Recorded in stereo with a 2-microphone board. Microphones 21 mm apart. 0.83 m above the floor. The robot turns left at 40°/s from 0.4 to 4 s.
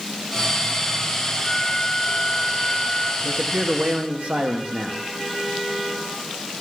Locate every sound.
1.4 s a flute: 175° right, 1.1 m; by 3.1 s 115° left, 1.1 m
3.2 s a man speaking: 55° right, 0.9 m; by 5.1 s 85° right, 0.9 m